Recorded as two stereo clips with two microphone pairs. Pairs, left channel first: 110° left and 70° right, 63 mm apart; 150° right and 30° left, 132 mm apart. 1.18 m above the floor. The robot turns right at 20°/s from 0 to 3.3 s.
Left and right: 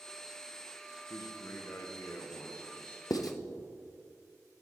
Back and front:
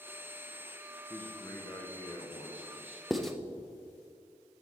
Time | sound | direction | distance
1.1 | a man speaking | 135° left | 0.7 m
3.1 | writing | 120° left | 0.5 m